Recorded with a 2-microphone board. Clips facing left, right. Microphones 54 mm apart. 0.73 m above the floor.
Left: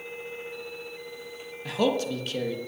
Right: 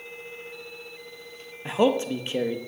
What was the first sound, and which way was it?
A man speaking, 20° right (ahead or behind).